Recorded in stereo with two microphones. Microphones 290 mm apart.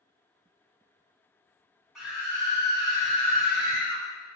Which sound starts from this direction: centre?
A scream, at 1.9 s.